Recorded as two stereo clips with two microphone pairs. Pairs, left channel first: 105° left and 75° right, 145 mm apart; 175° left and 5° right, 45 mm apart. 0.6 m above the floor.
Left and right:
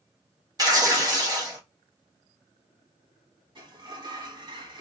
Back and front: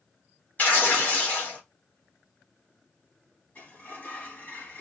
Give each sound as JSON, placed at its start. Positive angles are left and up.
{"t": 0.6, "sound": "tearing paper", "azimuth_deg": -135, "distance_m": 1.5}
{"t": 3.5, "sound": "a sliding door", "azimuth_deg": -130, "distance_m": 1.4}